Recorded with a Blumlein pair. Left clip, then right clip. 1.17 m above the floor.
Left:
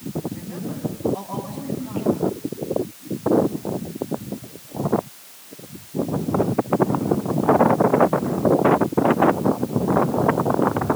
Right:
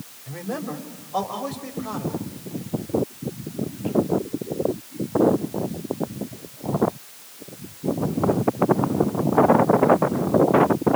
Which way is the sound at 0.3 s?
55° right.